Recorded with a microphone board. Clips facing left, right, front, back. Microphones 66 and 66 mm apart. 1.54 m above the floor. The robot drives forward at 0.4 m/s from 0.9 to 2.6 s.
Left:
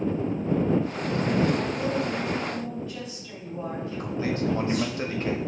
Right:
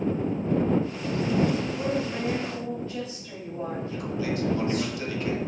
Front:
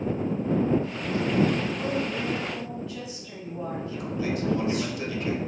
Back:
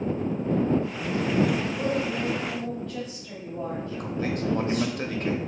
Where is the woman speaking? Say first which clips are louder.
Left 1 dB, back 2 dB; 145° right, 1.3 m; by 4.9 s 150° right, 1.6 m.